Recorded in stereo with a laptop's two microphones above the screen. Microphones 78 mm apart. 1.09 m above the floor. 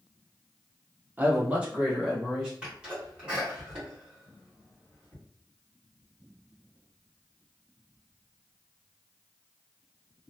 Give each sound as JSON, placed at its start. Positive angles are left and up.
{"t": 1.2, "sound": "a man speaking", "side_deg": -25, "distance_m": 0.5}
{"t": 2.6, "sound": "a sneeze", "side_deg": -15, "distance_m": 1.5}